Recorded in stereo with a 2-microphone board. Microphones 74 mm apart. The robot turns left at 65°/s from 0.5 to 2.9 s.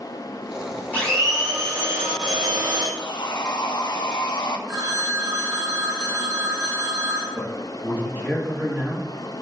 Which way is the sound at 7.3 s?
20° right (ahead or behind).